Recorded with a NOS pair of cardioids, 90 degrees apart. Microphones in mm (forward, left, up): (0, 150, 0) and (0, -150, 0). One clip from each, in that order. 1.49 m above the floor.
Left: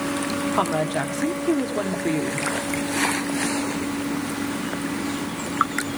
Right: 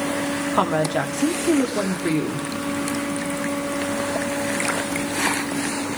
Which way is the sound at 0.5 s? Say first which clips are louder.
Right 3 dB; 15° right.